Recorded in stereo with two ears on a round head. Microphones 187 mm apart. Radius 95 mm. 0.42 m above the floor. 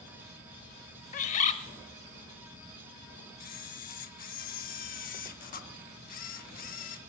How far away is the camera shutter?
About 0.7 m.